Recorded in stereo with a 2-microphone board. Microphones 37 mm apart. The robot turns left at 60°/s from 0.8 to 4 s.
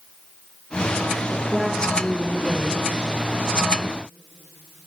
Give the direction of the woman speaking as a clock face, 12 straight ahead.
5 o'clock.